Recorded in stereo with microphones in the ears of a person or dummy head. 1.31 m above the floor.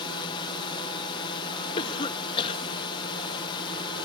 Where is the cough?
25° left (ahead or behind).